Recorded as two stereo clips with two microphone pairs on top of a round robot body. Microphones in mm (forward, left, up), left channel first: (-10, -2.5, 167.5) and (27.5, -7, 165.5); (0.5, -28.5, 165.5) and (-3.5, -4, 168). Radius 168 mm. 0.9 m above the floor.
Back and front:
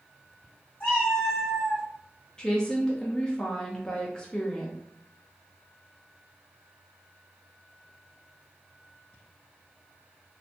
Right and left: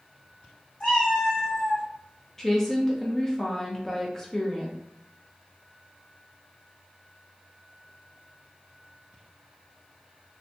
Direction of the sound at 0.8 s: 145° right.